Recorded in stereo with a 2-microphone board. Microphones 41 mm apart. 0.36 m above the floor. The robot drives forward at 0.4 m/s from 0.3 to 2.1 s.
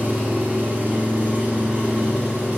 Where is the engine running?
45° right (ahead or behind), 2 m; by 2.6 s 35° right (ahead or behind), 2.5 m.